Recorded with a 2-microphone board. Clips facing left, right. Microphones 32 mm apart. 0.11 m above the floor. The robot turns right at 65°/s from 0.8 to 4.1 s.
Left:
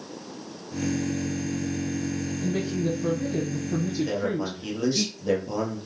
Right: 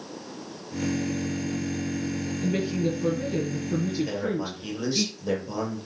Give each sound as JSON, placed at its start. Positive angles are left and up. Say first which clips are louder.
{"t": 2.4, "sound": "a woman speaking", "louder": "right 2 dB", "azimuth_deg": -120, "distance_m": 2.0}
{"t": 4.0, "sound": "a man speaking", "louder": "left 2 dB", "side_deg": 0, "distance_m": 2.5}